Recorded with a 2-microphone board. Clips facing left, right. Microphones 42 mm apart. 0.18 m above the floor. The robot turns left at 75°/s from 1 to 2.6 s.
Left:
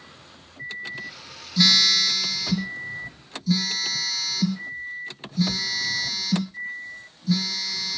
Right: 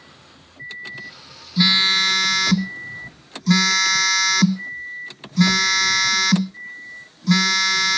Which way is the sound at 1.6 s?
15° right.